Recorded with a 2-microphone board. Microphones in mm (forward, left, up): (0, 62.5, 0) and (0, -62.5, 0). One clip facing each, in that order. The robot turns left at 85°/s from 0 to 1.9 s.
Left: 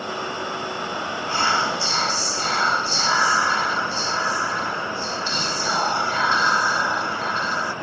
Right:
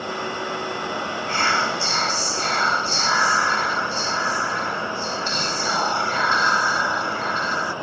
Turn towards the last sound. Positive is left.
turn(degrees=10)  # may be behind; listen again after turning